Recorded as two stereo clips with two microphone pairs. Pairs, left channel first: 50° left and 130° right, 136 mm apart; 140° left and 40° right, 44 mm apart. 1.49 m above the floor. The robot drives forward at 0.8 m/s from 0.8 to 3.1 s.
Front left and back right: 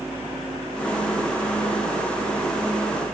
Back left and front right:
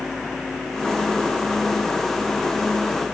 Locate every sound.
Only background noise.